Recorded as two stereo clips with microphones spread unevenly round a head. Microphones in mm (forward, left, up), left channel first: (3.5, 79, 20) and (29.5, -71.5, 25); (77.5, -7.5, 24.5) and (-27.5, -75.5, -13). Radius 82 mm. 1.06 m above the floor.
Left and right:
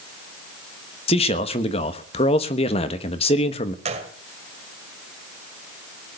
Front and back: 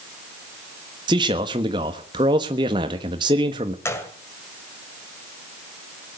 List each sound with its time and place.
1.1 s a man speaking: 155° left, 1.3 m
3.9 s a gunshot: 30° right, 2.0 m